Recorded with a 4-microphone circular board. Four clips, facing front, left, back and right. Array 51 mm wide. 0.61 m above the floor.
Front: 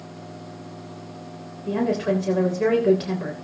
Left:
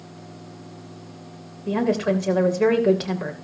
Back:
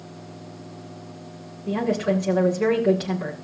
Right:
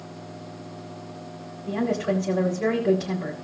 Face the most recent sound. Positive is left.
turn(degrees=90)